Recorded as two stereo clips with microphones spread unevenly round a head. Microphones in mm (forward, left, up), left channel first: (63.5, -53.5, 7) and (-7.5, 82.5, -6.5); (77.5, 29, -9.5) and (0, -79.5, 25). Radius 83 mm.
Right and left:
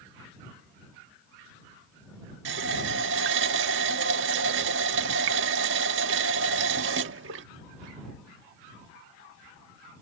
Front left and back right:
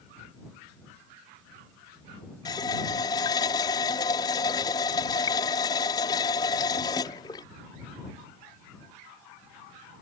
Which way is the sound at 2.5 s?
125° left.